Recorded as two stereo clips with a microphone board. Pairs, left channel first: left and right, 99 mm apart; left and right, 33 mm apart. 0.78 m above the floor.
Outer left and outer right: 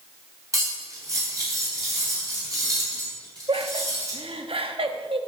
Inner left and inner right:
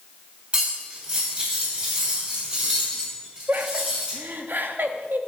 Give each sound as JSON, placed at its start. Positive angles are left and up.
{"t": 0.5, "sound": "cutlery clinking", "side_deg": -35, "distance_m": 3.0}
{"t": 3.5, "sound": "laughter", "side_deg": -65, "distance_m": 0.9}